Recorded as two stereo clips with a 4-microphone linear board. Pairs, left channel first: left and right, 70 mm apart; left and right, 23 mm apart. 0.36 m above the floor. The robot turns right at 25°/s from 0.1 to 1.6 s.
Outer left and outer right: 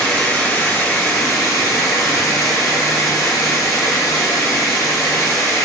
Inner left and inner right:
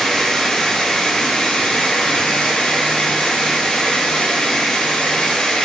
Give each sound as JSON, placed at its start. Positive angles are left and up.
{"t": 0.0, "sound": "running water", "azimuth_deg": 20, "distance_m": 1.3}